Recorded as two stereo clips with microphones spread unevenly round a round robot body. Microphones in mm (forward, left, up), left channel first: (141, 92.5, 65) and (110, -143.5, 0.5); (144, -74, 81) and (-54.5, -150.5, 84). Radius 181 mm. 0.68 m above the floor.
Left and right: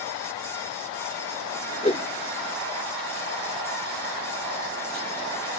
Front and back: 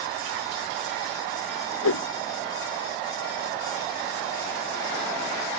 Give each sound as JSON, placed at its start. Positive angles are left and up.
{"t": 1.8, "sound": "a whoosh", "azimuth_deg": 20}